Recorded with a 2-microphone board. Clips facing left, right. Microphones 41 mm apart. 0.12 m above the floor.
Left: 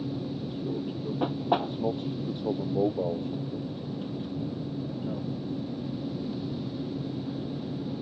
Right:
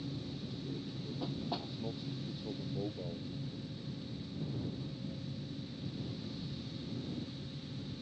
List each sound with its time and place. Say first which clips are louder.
0.0 s an aircraft: left 10 dB; 45° left (ahead or behind); by 8.0 s 65° left (ahead or behind)